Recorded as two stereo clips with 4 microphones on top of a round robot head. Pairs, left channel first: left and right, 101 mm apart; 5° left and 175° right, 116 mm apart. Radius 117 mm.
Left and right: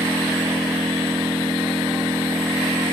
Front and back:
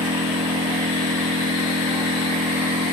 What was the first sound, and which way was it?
An engine running, 160° right.